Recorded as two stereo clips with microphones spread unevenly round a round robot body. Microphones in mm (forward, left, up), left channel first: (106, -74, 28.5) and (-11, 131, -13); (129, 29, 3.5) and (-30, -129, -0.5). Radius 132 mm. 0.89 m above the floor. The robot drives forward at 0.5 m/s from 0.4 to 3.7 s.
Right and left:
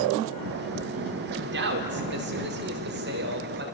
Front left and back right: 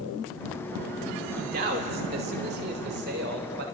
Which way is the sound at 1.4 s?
165° left.